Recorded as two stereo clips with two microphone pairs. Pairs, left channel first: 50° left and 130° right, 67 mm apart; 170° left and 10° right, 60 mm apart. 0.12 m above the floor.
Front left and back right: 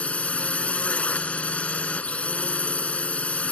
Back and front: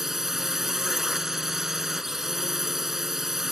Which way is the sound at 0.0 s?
65° left.